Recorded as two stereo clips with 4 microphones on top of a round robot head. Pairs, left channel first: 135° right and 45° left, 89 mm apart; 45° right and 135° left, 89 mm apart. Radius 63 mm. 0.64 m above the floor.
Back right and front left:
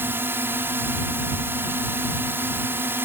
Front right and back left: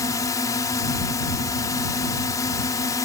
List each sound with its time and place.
0.0 s a drone: 10° right